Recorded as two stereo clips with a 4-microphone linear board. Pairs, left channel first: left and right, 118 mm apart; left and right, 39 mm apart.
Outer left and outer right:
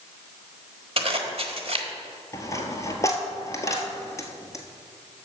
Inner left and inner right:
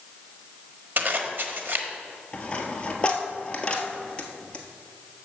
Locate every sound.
1.0 s a zipper: 55° right (ahead or behind), 1.2 m
2.3 s a dropped coin: 25° left (ahead or behind), 1.3 m